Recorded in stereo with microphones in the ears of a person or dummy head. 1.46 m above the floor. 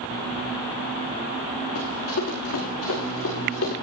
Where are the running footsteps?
75° left (ahead or behind), 8 m; by 3.7 s 70° left (ahead or behind), 8.5 m.